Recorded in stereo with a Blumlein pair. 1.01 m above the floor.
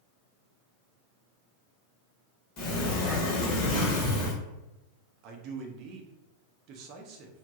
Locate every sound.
2.6 s a sliding door: 40° left, 1.2 m
5.2 s a man speaking: 40° right, 0.6 m